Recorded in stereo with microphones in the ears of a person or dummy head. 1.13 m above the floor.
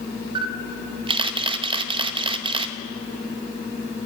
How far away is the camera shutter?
About 0.7 m.